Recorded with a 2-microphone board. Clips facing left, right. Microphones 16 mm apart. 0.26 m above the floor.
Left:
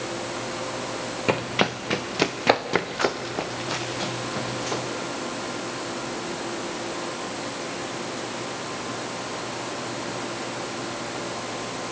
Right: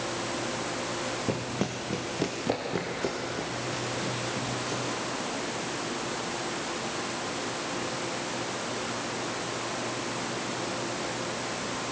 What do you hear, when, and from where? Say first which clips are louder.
1.3 s running footsteps: left 7 dB; 65° left (ahead or behind), 1.0 m; by 4.8 s 70° left (ahead or behind), 3.5 m